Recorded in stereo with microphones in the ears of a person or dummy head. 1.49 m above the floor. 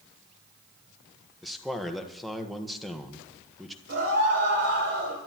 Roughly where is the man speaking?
Centre.